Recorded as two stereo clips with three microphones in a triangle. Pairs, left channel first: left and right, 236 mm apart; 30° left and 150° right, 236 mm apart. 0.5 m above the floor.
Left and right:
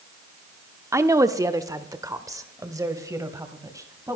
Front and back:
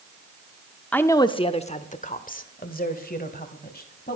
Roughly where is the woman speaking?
Ahead right.